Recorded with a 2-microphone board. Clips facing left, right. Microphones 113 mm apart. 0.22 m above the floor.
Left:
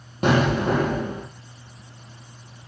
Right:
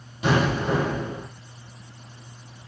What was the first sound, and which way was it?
An explosion, 55° left (ahead or behind).